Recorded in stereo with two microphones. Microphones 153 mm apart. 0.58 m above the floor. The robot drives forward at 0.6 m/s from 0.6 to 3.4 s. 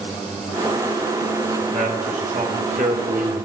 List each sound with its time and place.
1.6 s a man speaking: 55° right (ahead or behind), 2.5 m; by 3.5 s 65° right (ahead or behind), 2 m